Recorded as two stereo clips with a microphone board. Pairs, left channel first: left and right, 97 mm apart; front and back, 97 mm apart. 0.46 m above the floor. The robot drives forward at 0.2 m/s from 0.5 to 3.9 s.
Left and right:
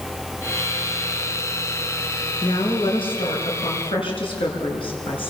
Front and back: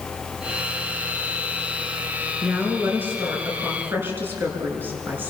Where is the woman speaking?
110° left, 6.5 m.